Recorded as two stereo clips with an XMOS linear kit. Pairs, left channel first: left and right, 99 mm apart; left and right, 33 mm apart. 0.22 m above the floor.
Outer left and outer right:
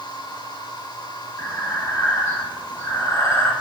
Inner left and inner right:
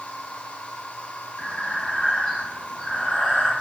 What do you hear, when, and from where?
0.0 s an insect: 45° left (ahead or behind), 2 m
1.4 s breathing: 30° left (ahead or behind), 2 m